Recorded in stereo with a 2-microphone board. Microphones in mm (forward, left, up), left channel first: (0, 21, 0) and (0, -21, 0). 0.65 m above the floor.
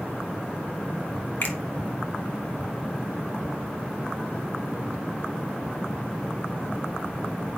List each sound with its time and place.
1.4 s a finger snap: 65° left (ahead or behind), 1.6 m